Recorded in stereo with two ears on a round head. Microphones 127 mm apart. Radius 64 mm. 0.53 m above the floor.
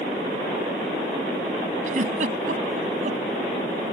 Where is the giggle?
60° right (ahead or behind).